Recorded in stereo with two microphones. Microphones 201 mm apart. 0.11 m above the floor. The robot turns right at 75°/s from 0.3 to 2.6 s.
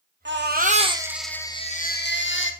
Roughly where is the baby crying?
Right.